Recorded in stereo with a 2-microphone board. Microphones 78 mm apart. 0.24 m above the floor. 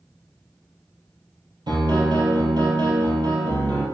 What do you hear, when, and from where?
1.7 s a piano: 65° right (ahead or behind), 2 m